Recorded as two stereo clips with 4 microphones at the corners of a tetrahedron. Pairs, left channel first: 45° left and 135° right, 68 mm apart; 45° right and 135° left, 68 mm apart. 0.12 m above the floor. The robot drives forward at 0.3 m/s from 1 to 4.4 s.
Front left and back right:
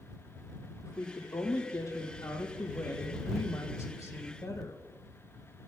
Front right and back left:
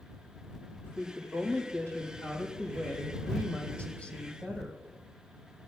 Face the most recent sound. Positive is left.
turn(degrees=25)